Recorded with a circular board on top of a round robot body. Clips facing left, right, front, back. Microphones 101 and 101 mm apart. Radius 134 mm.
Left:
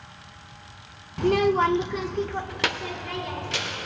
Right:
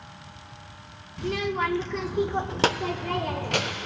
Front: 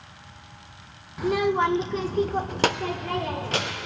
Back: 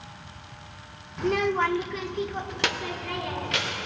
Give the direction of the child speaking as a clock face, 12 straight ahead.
9 o'clock.